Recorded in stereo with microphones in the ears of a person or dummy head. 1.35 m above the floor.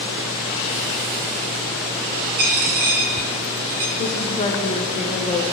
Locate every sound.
2.4 s a dropped coin: 45° right (ahead or behind), 1.8 m
4.0 s a woman speaking: 30° left (ahead or behind), 0.8 m